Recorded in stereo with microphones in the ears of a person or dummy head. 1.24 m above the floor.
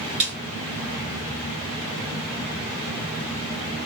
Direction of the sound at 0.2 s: 65° right (ahead or behind).